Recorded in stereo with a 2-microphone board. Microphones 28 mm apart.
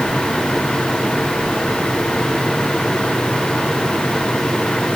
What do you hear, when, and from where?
Only background noise.